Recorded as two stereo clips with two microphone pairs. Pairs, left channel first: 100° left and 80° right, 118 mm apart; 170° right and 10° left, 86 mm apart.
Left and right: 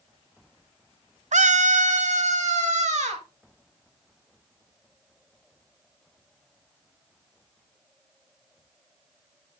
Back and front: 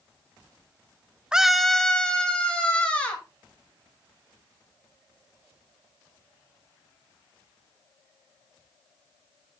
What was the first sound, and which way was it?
A scream, 70° right.